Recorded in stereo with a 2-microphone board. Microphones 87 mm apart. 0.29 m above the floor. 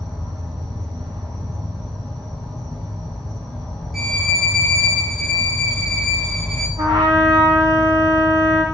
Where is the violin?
Centre (ahead or behind), 0.8 m.